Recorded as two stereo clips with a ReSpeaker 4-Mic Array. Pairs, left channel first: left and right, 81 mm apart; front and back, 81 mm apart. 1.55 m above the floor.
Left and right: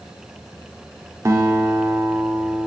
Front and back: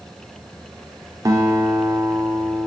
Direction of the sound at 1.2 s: 140° right.